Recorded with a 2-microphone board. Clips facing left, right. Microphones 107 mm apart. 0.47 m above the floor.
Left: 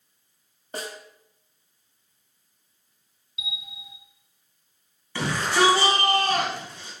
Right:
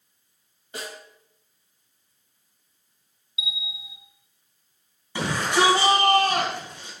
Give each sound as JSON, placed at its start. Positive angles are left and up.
{"t": 0.7, "sound": "a snare drum", "side_deg": 40, "distance_m": 2.0}
{"t": 3.4, "sound": "a bell", "side_deg": -5, "distance_m": 0.8}
{"t": 5.2, "sound": "a shout", "side_deg": -20, "distance_m": 3.5}